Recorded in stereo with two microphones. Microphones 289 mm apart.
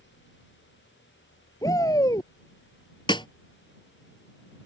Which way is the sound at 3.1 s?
15° left (ahead or behind).